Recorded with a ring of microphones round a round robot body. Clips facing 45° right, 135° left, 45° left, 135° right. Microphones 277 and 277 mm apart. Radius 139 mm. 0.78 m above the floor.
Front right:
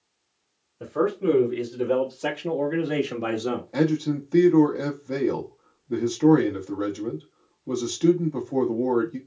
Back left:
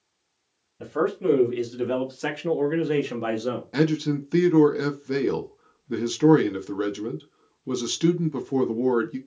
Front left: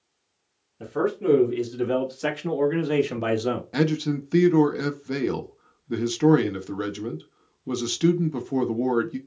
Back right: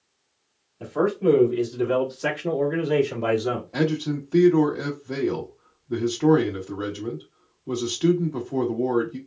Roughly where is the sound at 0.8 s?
Left.